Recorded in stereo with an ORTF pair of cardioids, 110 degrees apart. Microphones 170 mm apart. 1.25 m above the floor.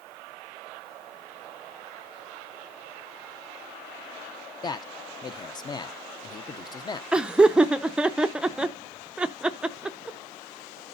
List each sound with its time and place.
4.6 s a man speaking: 25° left, 0.7 m
7.1 s laughter: 5° right, 0.5 m